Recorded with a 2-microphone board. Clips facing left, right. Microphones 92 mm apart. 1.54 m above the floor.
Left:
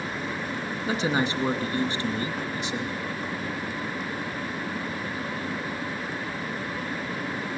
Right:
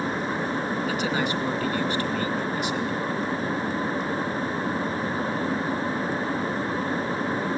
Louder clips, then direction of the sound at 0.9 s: Left 4 dB; 25° left (ahead or behind).